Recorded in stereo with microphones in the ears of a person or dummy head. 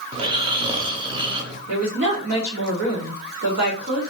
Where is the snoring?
25° right (ahead or behind), 0.6 m.